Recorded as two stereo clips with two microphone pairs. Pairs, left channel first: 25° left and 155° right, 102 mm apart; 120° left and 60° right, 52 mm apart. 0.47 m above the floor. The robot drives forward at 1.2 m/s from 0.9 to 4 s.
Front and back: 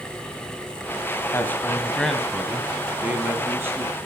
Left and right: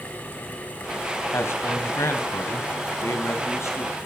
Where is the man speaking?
90° left, 2.5 m; by 4.0 s 140° left, 4 m.